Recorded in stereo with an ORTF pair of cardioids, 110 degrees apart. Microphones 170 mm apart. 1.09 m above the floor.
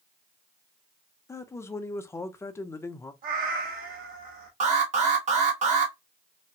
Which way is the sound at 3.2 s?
60° right.